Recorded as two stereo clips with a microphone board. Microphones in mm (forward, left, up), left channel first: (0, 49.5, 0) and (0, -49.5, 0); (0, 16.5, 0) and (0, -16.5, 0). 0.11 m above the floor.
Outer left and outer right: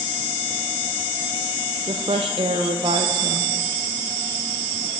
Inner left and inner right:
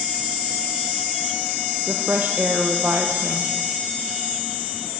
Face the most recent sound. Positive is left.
turn(degrees=-65)  # may be behind; listen again after turning